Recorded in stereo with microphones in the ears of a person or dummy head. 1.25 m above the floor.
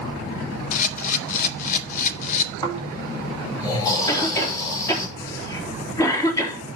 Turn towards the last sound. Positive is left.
turn(degrees=25)  # may be behind; listen again after turning